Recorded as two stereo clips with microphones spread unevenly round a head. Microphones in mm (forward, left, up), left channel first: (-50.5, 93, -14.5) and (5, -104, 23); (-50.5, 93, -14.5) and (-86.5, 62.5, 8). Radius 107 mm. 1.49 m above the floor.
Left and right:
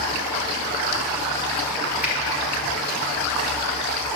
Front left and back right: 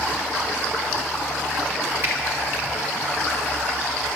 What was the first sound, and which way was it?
A finger snap, 155° right.